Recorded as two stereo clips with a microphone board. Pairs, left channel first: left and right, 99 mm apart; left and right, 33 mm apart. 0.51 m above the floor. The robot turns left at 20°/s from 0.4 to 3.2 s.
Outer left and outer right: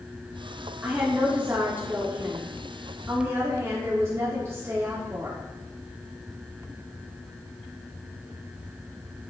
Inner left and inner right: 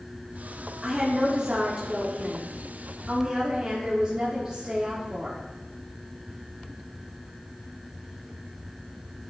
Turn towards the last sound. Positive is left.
turn(degrees=-30)  # may be behind; listen again after turning